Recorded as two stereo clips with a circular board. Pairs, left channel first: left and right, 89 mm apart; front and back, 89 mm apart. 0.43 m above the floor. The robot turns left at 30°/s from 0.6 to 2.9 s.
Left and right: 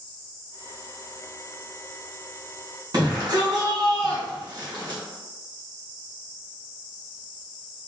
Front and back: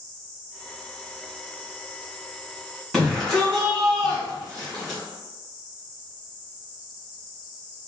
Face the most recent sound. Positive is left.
turn(degrees=-85)